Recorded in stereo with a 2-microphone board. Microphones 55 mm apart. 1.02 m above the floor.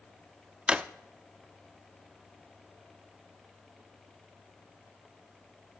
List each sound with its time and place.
0.7 s a drawer: 15° right (ahead or behind), 0.5 m